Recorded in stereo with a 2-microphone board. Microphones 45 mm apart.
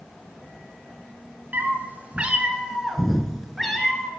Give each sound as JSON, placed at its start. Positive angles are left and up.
{"t": 1.5, "sound": "a cat meowing", "side_deg": -45, "distance_m": 0.9}